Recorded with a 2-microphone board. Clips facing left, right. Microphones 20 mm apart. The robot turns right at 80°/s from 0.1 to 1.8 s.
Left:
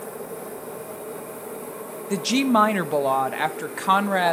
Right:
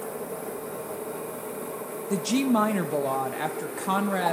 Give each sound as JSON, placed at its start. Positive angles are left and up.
{"t": 2.1, "sound": "a woman speaking", "side_deg": 30, "distance_m": 0.6}